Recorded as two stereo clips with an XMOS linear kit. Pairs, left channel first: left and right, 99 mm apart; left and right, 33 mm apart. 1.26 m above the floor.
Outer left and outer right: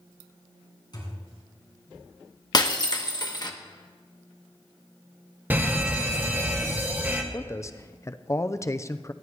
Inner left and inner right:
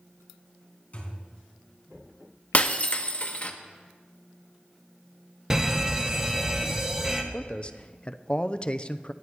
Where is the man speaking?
30° left (ahead or behind), 0.6 m.